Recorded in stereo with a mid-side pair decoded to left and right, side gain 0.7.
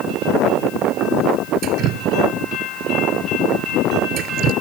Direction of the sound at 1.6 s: 55° right.